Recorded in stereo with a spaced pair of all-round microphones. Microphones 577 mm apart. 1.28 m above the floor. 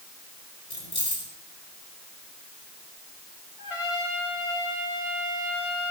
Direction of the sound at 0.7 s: 75° left (ahead or behind).